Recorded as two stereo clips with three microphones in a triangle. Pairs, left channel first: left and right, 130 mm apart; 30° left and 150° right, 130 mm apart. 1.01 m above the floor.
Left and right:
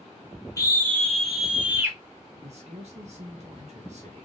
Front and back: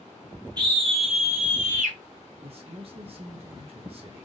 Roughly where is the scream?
Behind left.